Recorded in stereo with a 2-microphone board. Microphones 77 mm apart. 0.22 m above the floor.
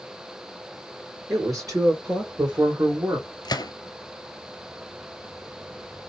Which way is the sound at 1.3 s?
50° right (ahead or behind).